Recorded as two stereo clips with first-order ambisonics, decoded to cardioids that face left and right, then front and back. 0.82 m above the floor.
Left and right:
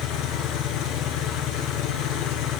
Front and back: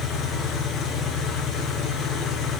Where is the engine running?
60° left, 6 m.